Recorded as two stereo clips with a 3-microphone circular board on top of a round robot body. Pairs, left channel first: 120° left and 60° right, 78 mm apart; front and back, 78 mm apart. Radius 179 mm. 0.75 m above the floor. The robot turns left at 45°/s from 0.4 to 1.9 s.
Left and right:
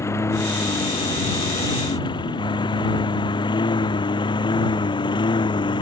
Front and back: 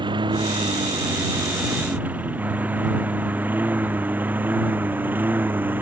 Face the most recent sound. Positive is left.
turn(degrees=115)